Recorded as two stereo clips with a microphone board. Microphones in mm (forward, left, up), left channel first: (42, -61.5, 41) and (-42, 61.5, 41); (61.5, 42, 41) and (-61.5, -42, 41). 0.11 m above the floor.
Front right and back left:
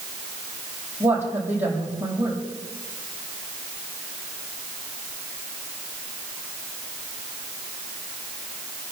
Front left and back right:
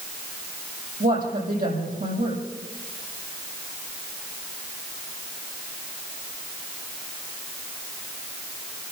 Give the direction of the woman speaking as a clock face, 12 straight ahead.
5 o'clock.